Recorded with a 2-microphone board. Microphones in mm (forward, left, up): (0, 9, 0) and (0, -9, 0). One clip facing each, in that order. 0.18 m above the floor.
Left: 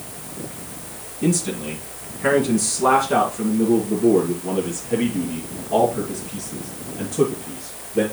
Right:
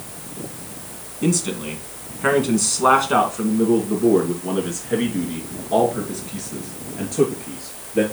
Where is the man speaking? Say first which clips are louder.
Even; 25° right (ahead or behind), 2 m; by 8.0 s 55° right (ahead or behind), 4.5 m.